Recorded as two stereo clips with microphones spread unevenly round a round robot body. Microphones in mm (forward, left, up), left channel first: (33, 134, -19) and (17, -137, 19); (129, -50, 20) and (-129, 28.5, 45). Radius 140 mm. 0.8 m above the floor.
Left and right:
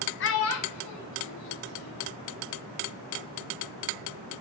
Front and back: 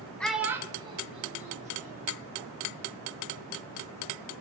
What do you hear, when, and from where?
0.2 s a child speaking: 65° left, 0.7 m; by 2.2 s 100° left, 2 m